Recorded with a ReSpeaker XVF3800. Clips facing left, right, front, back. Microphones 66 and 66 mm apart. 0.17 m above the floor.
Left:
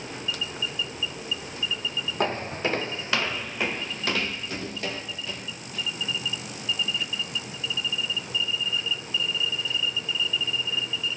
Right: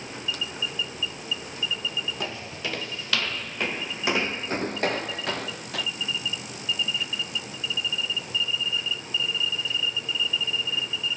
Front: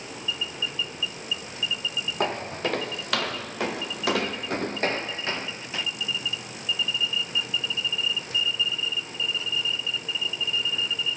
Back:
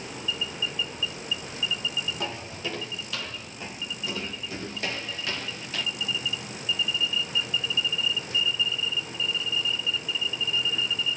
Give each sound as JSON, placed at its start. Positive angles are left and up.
{"t": 2.2, "sound": "footsteps", "azimuth_deg": 40, "distance_m": 1.3}